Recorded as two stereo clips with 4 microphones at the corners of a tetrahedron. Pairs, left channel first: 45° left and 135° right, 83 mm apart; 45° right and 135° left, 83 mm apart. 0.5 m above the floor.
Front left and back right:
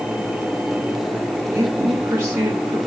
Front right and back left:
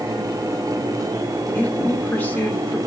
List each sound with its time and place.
1.6 s a woman speaking: 100° right, 1.2 m